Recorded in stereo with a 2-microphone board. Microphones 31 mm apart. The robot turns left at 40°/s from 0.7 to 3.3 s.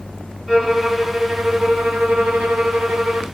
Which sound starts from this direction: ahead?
A violin, at 0.5 s.